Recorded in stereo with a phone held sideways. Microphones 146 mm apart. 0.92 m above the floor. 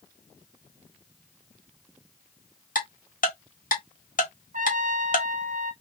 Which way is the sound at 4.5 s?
65° right (ahead or behind).